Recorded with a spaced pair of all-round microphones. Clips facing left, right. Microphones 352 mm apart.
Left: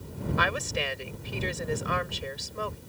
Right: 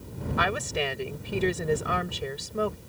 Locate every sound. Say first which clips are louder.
0.4 s a woman speaking: right 5 dB; 60° right (ahead or behind)